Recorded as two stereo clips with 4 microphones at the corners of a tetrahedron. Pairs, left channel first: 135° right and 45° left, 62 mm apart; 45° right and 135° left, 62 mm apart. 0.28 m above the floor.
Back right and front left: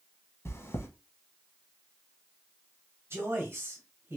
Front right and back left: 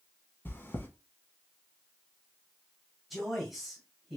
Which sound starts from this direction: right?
Chewing, at 0.5 s.